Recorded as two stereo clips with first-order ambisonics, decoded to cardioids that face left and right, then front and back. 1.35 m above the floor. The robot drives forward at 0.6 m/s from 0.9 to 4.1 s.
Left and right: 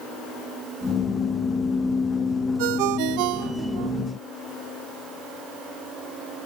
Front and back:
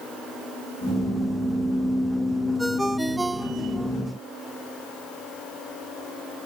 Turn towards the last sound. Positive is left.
turn(degrees=-110)